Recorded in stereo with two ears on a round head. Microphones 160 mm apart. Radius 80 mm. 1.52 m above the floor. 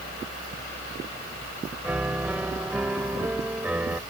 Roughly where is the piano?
Centre.